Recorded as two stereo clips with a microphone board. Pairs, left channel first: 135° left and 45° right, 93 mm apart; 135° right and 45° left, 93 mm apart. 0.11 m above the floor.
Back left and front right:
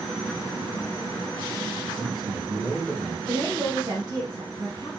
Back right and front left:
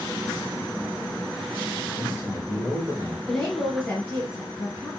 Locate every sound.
2.0 s a man speaking: 20° right, 2 m; by 3.2 s 5° right, 1.7 m
3.3 s a woman speaking: 60° right, 2 m